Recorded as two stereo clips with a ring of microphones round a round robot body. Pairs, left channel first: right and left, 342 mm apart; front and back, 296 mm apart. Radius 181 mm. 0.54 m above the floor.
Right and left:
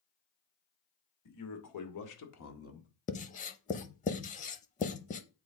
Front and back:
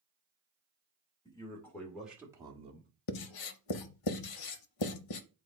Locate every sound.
1.2 s a man speaking: 75° right, 2.5 m; by 2.9 s 135° right, 1.5 m
3.1 s writing: 20° right, 0.6 m